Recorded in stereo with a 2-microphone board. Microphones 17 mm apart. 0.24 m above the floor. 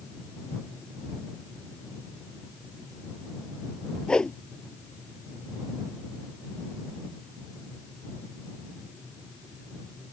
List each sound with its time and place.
4.1 s a whoosh: 60° left (ahead or behind)